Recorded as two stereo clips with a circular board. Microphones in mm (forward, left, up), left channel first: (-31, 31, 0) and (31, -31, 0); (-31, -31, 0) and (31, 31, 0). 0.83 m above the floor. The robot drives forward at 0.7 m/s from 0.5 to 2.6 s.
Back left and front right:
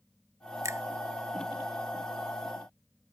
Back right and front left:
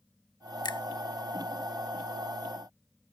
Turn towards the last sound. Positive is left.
turn(degrees=-145)